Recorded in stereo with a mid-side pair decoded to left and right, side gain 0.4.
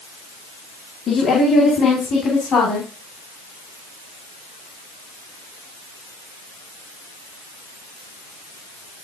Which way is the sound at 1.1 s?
70° left.